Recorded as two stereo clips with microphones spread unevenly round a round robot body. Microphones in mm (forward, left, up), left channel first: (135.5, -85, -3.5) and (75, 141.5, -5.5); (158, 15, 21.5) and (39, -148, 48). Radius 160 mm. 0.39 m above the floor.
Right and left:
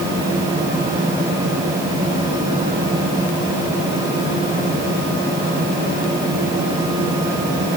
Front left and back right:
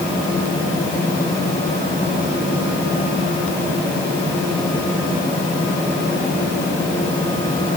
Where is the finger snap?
No finger snap in this recording.